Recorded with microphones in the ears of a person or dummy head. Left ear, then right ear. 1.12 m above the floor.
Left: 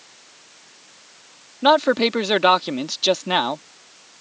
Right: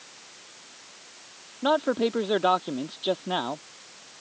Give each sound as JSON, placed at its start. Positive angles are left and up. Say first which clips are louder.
{"t": 1.6, "sound": "a man speaking", "louder": "left 8 dB", "side_deg": 70}